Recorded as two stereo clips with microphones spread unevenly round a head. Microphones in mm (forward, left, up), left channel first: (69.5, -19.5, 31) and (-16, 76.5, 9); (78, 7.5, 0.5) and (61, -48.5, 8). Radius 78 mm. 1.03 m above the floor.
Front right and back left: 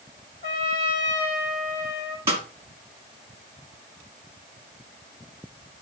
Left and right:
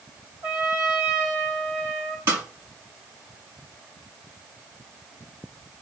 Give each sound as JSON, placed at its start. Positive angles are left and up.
{"t": 0.4, "sound": "a trumpet", "azimuth_deg": -175, "distance_m": 3.5}
{"t": 2.3, "sound": "a snare drum", "azimuth_deg": -150, "distance_m": 1.6}